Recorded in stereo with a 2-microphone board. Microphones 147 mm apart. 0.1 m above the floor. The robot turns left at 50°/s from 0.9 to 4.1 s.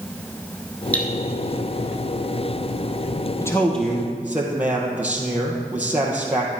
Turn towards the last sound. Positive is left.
turn(degrees=-10)